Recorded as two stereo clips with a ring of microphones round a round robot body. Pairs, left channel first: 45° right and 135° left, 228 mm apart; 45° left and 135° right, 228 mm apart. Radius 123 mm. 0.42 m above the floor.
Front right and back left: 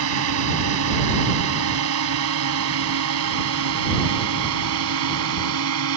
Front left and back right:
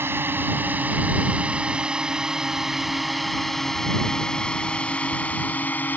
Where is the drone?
145° left; by 6.0 s 125° left.